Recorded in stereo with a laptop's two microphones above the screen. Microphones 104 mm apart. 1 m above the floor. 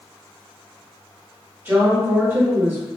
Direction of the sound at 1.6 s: 20° right (ahead or behind).